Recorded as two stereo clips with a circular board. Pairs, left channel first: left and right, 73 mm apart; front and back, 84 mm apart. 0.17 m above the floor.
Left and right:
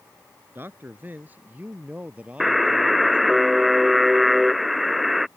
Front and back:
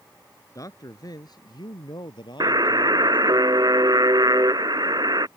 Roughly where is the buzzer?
Behind.